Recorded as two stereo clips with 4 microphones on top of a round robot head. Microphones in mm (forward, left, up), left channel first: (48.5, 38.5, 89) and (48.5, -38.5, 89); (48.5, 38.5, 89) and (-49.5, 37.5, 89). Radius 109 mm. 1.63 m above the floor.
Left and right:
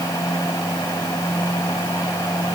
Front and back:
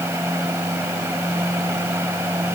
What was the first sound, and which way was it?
Only background noise.